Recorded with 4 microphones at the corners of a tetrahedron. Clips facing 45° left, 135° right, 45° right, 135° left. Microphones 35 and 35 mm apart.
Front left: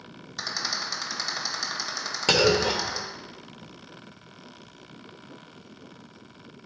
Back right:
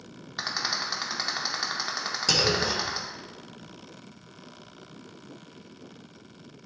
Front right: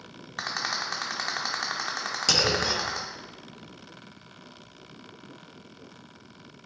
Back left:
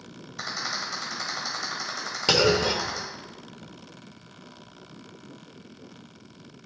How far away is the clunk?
About 1.0 m.